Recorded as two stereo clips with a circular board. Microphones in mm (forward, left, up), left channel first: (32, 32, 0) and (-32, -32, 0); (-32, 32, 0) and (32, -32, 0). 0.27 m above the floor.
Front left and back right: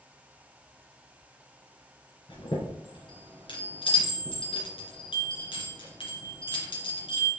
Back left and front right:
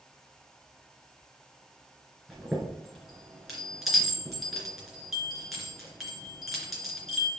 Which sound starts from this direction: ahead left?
A chime, at 2.3 s.